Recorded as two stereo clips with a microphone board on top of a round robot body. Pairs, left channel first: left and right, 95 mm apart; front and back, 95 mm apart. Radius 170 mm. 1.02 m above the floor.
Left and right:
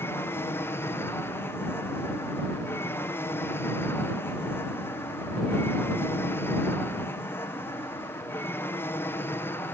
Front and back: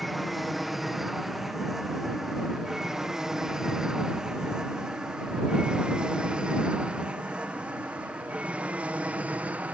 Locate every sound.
0.0 s an aircraft: 90° left; by 9.7 s 125° left